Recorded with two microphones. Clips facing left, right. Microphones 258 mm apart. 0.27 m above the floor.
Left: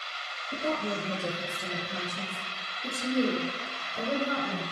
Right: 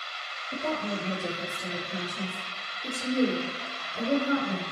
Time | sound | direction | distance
0.5 | a woman speaking | 15° left (ahead or behind) | 4 m